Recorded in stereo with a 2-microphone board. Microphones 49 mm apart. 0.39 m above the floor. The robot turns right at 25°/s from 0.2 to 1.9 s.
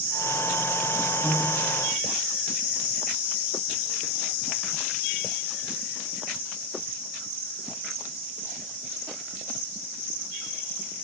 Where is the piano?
35° right (ahead or behind), 1.7 m; by 1.8 s 50° right (ahead or behind), 1.7 m.